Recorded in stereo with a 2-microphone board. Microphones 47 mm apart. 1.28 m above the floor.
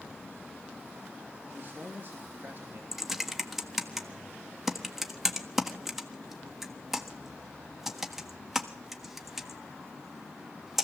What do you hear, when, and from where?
1.5 s a man speaking: 50° right (ahead or behind), 2.5 m
2.9 s typing on a keyboard: 5° right (ahead or behind), 1.5 m